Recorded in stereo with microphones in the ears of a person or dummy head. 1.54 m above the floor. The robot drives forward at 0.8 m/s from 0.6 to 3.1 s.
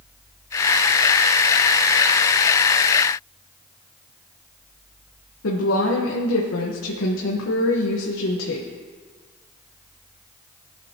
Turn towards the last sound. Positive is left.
turn(degrees=75)  # may be behind; listen again after turning